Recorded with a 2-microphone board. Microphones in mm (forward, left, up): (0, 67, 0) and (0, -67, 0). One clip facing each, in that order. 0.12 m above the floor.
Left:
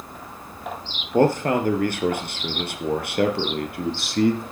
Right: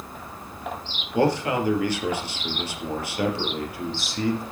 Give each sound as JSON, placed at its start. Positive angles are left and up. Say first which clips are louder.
{"t": 1.1, "sound": "a man speaking", "louder": "left 3 dB", "side_deg": 45, "distance_m": 3.0}